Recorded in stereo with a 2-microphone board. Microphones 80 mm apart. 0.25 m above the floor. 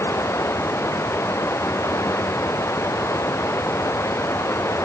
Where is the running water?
35° left (ahead or behind).